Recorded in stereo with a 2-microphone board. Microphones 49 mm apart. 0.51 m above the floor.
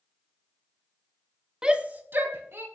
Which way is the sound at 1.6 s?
15° right (ahead or behind).